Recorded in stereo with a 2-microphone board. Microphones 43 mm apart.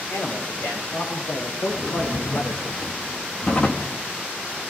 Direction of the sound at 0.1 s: 75° left (ahead or behind).